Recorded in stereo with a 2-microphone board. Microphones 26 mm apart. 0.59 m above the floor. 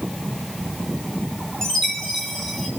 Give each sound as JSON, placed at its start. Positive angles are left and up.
{"t": 1.6, "sound": "a chime", "side_deg": 20, "distance_m": 2.5}